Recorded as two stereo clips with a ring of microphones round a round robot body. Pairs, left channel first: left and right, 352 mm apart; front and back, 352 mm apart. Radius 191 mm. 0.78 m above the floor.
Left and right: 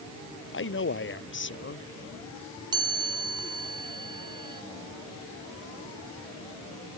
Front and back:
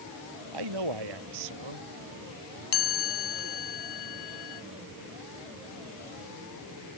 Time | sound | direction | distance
0.5 | a man speaking | 145° left | ?
2.7 | a chime | 10° right | ?